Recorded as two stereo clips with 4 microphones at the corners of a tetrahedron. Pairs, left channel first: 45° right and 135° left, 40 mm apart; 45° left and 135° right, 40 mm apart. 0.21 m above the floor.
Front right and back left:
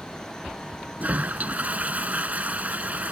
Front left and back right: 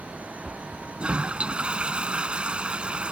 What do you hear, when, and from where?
1.0 s a toilet flushing: 170° left